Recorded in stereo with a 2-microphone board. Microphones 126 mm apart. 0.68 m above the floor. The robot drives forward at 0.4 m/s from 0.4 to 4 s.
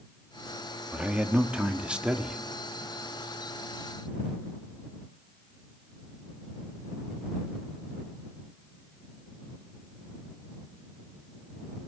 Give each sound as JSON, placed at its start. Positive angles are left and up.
{"t": 0.9, "sound": "a man speaking", "side_deg": -10, "distance_m": 1.0}